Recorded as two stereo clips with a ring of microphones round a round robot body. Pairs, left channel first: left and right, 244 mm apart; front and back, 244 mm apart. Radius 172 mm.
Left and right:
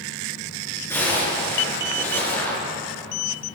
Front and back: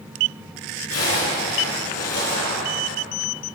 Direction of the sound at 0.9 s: 10° left.